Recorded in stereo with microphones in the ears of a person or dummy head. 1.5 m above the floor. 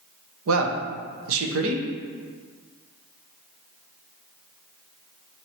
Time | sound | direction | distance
0.5 | a man speaking | 80° right | 0.7 m